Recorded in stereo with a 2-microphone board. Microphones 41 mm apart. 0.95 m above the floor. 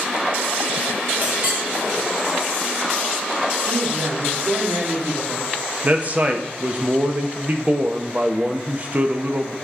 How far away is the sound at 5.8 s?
About 0.8 m.